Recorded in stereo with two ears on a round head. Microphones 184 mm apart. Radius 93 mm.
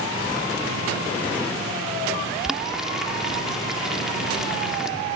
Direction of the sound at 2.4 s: Centre (ahead or behind).